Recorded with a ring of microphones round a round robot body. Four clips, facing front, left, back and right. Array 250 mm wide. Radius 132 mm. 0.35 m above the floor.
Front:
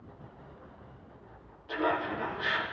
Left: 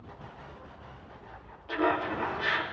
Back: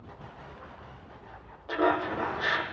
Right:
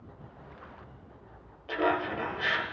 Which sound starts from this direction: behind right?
Laughter, at 1.7 s.